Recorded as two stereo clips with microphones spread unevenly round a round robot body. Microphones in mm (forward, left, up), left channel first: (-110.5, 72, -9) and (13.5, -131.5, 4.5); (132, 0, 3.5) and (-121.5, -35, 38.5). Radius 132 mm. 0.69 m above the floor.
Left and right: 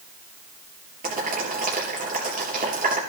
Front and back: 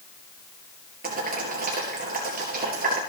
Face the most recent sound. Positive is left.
turn(degrees=-115)